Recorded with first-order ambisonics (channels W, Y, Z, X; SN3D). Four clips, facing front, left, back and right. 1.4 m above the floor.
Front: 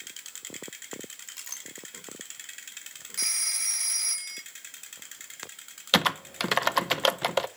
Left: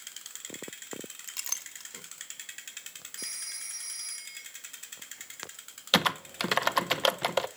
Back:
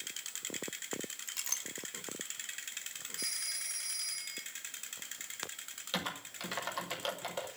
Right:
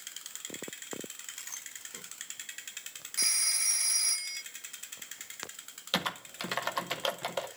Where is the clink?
105° left, 1.6 m.